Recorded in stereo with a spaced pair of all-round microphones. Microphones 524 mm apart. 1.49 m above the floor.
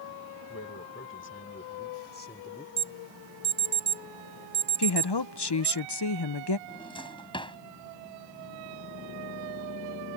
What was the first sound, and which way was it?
A man speaking, 25° left (ahead or behind).